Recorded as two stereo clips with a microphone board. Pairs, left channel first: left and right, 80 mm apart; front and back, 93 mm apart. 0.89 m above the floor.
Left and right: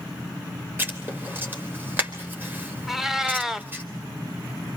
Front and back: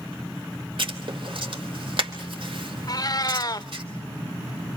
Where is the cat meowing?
5° right, 0.8 m.